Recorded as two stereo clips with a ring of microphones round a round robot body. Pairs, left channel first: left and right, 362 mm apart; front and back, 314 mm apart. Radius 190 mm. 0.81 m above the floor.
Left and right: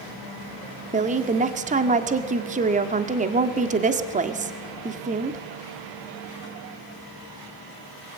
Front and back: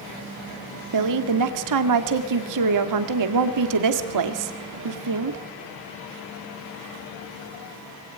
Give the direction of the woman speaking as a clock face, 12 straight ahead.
5 o'clock.